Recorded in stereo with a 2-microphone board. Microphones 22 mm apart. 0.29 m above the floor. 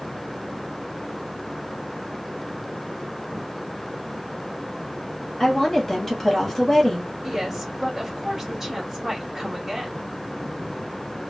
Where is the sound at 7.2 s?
15° right (ahead or behind), 1.6 m.